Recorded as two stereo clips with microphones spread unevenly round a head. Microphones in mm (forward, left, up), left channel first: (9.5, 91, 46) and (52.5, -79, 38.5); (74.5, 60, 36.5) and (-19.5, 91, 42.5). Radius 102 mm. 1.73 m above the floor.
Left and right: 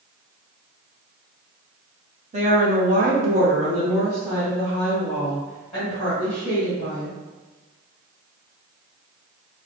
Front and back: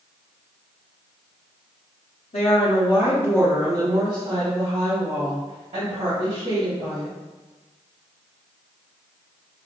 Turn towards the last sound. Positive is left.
turn(degrees=-175)